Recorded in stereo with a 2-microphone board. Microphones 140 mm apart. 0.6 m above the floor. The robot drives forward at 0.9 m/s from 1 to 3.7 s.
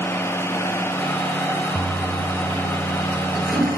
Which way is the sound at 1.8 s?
5° right (ahead or behind).